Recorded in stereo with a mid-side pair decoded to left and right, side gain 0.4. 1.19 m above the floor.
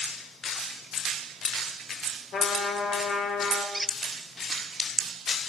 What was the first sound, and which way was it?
A trumpet, 70° left.